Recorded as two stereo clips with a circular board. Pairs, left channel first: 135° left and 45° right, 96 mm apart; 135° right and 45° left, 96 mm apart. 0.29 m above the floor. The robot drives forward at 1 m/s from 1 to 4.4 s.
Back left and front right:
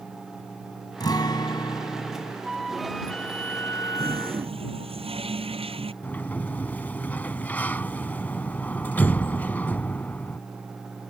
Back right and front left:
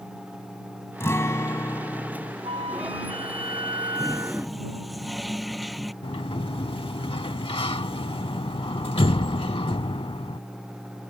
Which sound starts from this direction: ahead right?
A toilet flushing, at 4.0 s.